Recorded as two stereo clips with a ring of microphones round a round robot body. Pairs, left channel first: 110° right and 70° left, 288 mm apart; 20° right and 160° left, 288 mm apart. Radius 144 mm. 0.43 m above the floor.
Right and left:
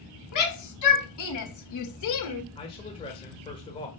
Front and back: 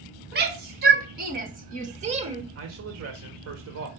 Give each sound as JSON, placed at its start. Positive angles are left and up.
{"t": 0.3, "sound": "a shout", "azimuth_deg": -145, "distance_m": 3.5}
{"t": 2.5, "sound": "a man speaking", "azimuth_deg": 180, "distance_m": 1.7}